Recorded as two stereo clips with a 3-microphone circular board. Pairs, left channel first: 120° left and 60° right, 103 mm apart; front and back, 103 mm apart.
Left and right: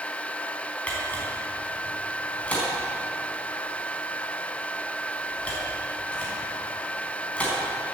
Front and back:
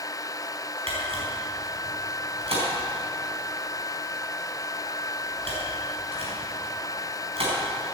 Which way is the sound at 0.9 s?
165° right.